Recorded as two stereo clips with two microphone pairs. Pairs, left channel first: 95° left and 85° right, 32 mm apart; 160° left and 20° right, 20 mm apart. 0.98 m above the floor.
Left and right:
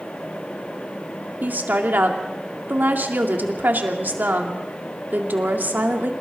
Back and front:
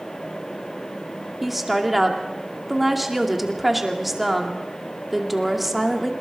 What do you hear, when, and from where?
1.4 s a woman speaking: 100° right, 2 m